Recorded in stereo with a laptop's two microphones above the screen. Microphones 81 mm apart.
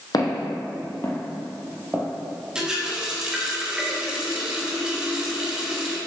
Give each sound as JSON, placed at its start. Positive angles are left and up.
{"t": 0.1, "sound": "footsteps", "side_deg": 50, "distance_m": 1.5}
{"t": 2.5, "sound": "a running tap", "side_deg": -10, "distance_m": 0.9}